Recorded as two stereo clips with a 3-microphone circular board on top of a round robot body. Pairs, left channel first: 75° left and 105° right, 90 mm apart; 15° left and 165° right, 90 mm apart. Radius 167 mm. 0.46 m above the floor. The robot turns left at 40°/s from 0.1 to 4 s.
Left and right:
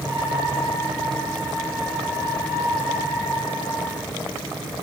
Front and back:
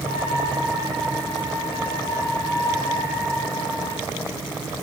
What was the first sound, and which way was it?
Only background noise.